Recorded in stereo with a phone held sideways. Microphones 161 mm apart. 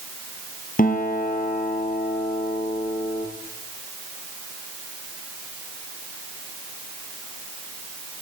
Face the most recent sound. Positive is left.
turn(degrees=60)  # may be behind; listen again after turning